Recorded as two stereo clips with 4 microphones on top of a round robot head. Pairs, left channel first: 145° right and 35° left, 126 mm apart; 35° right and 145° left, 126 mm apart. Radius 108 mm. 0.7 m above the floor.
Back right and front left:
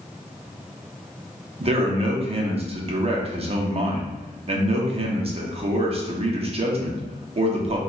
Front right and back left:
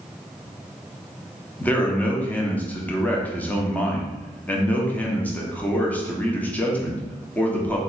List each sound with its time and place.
1.6 s a man speaking: 35° left, 0.8 m